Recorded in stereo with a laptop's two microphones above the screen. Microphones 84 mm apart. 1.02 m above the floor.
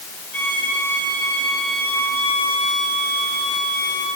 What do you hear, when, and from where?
0.3 s a violin: 20° left (ahead or behind), 7.5 m